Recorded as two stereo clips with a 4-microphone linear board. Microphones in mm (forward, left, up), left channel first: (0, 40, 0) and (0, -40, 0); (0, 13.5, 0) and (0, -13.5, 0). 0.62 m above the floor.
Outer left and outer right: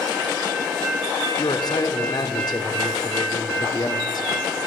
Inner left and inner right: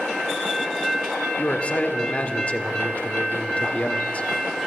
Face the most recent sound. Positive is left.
turn(degrees=55)  # may be behind; listen again after turning